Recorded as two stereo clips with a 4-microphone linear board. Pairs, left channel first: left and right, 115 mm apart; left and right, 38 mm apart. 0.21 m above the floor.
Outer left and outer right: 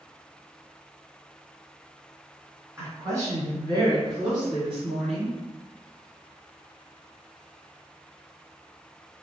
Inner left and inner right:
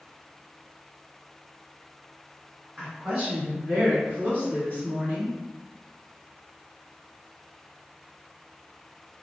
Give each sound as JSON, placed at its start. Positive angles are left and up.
{"t": 2.8, "sound": "a woman speaking", "side_deg": -25, "distance_m": 1.4}